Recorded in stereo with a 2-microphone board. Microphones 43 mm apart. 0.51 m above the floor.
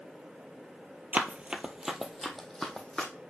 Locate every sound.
1.1 s running footsteps: 40° right (ahead or behind), 0.7 m; by 3.1 s 15° left (ahead or behind), 1.5 m